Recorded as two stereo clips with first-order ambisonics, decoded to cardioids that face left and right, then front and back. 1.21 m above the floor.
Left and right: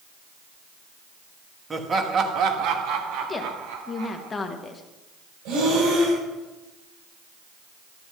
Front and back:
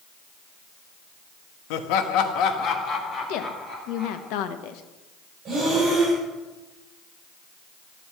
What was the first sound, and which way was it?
Laughter, 10° right.